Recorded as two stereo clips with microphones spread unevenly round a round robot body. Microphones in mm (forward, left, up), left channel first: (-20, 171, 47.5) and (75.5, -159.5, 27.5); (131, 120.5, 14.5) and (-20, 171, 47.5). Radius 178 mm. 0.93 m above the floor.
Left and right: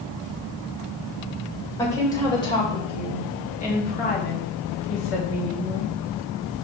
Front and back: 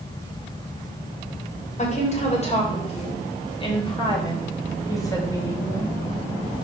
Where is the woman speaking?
25° left, 4 m; by 5.9 s 55° left, 3.5 m.